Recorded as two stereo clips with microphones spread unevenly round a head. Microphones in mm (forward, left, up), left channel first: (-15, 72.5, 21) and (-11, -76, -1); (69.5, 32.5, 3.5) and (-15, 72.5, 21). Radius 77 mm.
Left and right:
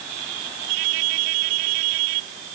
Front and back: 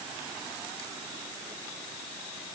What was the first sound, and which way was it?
Only background noise.